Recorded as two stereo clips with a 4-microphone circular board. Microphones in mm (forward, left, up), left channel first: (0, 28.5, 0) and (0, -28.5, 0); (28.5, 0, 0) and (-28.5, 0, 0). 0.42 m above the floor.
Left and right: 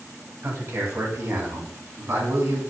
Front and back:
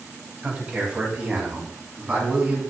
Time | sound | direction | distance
0.4 | a man speaking | 115° right | 2.5 m